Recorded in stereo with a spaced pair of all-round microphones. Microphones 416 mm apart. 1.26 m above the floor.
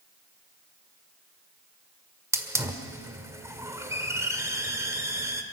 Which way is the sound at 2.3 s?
5° right (ahead or behind).